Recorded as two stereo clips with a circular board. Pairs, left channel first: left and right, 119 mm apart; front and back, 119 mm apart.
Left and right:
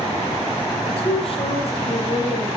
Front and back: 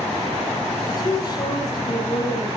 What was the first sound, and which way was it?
A woman speaking, 55° left.